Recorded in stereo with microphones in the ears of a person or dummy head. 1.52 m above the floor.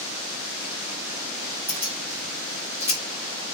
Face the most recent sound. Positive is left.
turn(degrees=-15)  # may be behind; listen again after turning